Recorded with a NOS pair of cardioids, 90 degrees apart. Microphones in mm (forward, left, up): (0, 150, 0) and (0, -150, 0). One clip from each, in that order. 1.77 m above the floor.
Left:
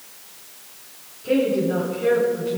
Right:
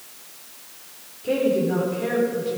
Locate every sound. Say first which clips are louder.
1.2 s a woman speaking: left 1 dB; 15° right, 5 m; by 2.6 s 25° right, 5 m